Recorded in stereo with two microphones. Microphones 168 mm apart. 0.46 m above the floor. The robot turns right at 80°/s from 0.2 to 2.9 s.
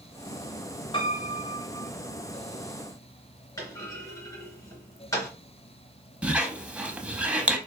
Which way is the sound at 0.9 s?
70° left.